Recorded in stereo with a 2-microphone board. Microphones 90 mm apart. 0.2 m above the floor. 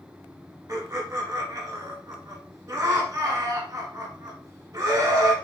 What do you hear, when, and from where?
0.7 s laughter: 35° right (ahead or behind), 1.1 m